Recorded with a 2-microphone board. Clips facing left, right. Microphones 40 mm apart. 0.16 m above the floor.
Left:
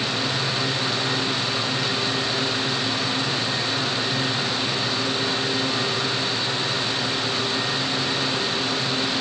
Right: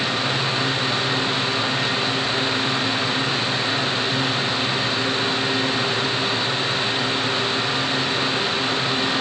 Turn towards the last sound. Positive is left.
No sound to turn to.